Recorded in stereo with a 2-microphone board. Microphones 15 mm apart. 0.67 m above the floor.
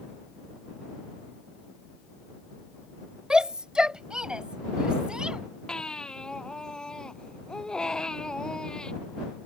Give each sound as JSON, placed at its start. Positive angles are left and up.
{"t": 3.3, "sound": "a shout", "side_deg": -55}
{"t": 5.7, "sound": "a baby crying", "side_deg": 45}